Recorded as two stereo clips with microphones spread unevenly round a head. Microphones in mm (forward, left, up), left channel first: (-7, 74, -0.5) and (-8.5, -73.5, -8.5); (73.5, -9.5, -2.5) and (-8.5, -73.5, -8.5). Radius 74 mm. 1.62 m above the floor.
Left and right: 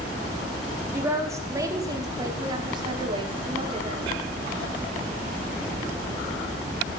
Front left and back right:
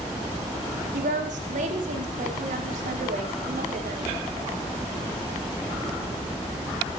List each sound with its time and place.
0.9 s a woman speaking: 165° right, 4.5 m; by 4.0 s 145° right, 6 m